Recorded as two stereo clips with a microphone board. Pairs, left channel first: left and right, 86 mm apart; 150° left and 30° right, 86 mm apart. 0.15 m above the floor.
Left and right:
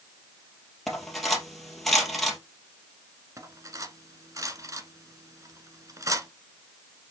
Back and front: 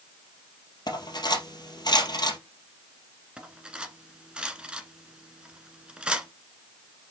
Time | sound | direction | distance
0.9 | cutlery clinking | straight behind | 2.5 m
3.4 | cutlery clinking | 105° right | 1.2 m